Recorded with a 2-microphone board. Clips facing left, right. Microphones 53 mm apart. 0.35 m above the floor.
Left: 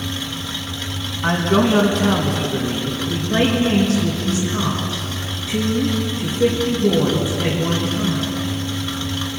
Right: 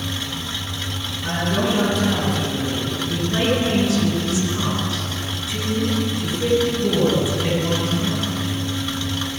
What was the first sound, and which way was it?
A man speaking, 60° left (ahead or behind).